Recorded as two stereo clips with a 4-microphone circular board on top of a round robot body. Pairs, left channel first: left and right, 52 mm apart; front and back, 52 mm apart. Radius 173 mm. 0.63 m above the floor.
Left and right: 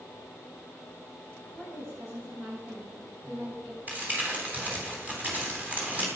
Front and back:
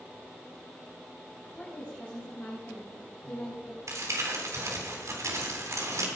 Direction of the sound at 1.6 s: 60° right.